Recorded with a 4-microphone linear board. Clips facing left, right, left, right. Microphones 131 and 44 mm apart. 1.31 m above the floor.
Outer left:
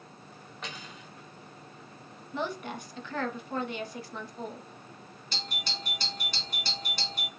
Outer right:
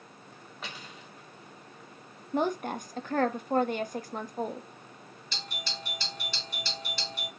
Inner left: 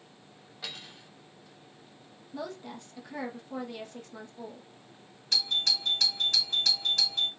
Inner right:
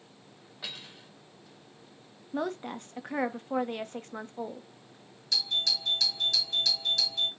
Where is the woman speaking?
45° right (ahead or behind), 0.7 m.